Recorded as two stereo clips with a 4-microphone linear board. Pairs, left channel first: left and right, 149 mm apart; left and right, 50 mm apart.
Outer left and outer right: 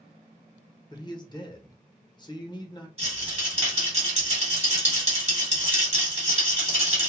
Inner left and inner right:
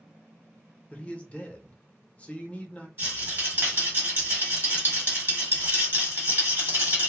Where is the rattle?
45° right (ahead or behind), 1.4 m.